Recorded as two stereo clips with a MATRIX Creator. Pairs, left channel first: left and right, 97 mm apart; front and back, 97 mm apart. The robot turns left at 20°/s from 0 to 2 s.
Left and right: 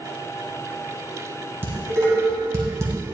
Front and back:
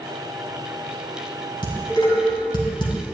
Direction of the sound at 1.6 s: 25° right.